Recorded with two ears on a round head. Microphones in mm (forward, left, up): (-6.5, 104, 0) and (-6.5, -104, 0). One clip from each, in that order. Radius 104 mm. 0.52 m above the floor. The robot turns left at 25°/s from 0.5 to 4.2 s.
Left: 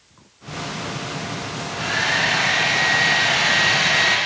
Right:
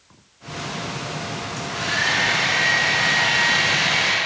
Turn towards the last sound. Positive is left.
turn(degrees=145)